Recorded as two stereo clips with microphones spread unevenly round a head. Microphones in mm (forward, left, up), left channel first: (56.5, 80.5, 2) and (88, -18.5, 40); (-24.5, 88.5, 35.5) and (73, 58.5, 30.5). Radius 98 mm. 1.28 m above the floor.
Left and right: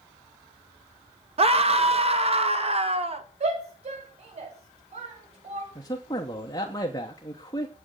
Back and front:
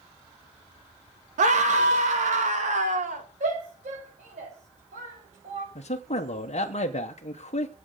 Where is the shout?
55° right, 6.5 m.